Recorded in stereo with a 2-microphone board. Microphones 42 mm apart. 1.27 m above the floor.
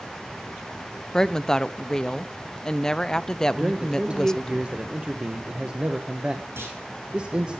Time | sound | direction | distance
1.1 | a woman speaking | 15° left (ahead or behind) | 0.6 m
3.6 | a man speaking | 30° right (ahead or behind) | 1.2 m
6.6 | a clunk | 75° right (ahead or behind) | 4.5 m